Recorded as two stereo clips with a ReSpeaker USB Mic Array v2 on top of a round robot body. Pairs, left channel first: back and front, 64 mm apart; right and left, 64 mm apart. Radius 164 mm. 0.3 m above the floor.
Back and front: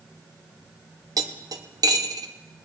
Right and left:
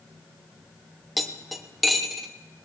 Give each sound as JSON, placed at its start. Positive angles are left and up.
{"t": 1.2, "sound": "cutlery clinking", "azimuth_deg": 0, "distance_m": 1.2}